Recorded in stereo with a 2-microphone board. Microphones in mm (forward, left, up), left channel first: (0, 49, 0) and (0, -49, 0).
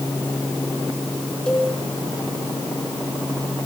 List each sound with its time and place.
1.5 s a cowbell: 5° left (ahead or behind), 5 m